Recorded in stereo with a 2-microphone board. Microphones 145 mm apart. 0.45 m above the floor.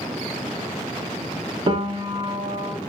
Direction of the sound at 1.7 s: 35° right (ahead or behind).